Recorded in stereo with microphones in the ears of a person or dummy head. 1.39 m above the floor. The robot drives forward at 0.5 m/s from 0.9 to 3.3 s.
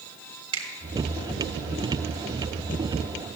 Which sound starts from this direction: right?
A finger snap, at 0.5 s.